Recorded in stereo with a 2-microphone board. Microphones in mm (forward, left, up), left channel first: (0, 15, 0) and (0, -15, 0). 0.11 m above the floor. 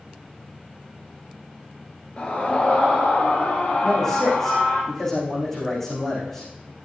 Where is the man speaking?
15° left (ahead or behind), 7 m.